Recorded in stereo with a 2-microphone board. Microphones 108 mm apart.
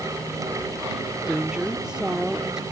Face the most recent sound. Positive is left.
turn(degrees=-5)  # may be behind; listen again after turning